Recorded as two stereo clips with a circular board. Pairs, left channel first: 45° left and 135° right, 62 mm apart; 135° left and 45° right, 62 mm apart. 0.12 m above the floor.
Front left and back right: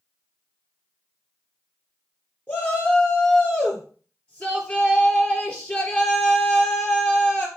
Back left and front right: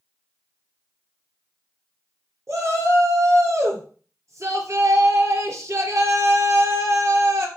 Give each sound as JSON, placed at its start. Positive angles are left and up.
{"t": 2.5, "sound": "a shout", "azimuth_deg": -15, "distance_m": 3.0}